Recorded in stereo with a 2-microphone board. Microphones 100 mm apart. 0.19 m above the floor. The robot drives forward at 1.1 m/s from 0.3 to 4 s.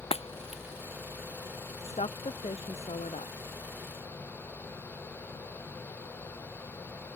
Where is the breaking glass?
85° left; by 0.6 s 75° left (ahead or behind).